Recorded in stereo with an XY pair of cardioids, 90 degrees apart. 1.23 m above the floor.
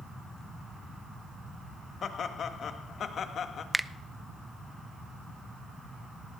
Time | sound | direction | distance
2.0 | laughter | 60° left | 1.6 m
3.7 | a finger snap | 10° right | 0.5 m